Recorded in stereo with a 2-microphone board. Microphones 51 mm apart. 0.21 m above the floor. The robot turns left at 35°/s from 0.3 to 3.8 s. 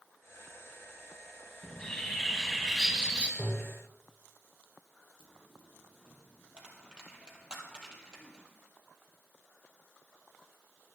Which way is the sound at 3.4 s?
30° right (ahead or behind).